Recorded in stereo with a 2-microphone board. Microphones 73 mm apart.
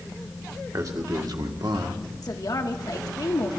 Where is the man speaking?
50° right (ahead or behind), 1.7 m; by 2.0 s 70° right (ahead or behind), 1.4 m.